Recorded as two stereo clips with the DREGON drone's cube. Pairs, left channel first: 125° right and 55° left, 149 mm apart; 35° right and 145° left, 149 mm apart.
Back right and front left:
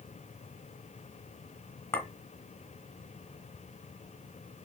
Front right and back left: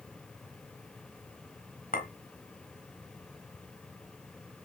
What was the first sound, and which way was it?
A clink, 55° right.